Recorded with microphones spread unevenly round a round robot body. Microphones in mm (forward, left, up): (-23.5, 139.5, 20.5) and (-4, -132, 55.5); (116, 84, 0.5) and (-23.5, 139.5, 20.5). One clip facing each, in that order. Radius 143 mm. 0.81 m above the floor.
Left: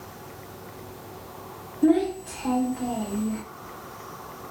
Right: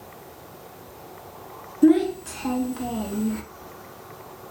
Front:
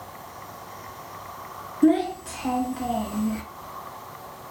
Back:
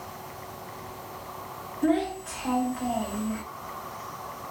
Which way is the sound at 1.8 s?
30° right.